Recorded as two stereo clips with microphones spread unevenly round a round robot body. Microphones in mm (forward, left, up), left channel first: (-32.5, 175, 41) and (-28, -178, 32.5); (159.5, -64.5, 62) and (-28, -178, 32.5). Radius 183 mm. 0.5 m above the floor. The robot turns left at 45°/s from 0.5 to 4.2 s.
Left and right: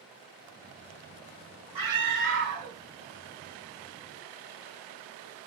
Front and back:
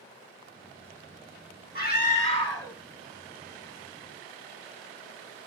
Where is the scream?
5° right, 1.9 m; by 2.8 s 50° right, 1.9 m.